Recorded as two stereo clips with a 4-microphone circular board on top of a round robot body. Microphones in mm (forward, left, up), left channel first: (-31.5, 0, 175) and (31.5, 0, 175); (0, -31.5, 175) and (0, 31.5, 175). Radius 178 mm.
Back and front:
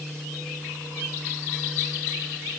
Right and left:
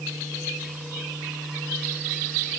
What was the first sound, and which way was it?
Only background noise.